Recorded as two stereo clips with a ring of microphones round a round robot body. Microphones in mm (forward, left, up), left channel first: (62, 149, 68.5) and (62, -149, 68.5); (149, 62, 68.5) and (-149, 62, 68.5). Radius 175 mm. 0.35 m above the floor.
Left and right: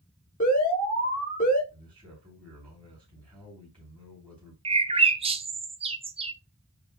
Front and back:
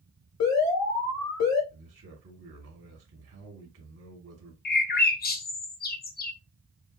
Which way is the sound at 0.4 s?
25° left.